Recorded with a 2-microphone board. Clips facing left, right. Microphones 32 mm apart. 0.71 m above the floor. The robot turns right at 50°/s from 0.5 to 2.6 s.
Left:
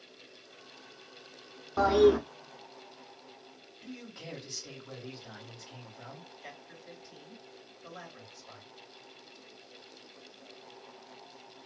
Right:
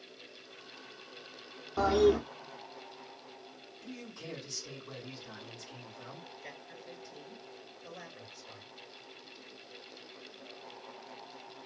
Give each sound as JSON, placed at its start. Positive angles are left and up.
{"t": 1.8, "sound": "a toilet flushing", "side_deg": 20, "distance_m": 0.6}
{"t": 3.8, "sound": "a man speaking", "side_deg": 50, "distance_m": 1.8}
{"t": 6.4, "sound": "a man speaking", "side_deg": 65, "distance_m": 2.0}